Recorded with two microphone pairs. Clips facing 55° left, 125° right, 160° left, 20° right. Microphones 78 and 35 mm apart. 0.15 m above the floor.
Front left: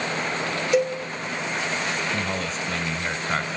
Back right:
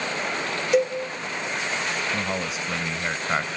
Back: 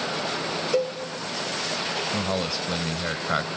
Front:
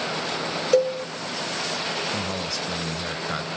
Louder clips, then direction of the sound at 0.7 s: Back right 1 dB, front 6 dB; 30° right.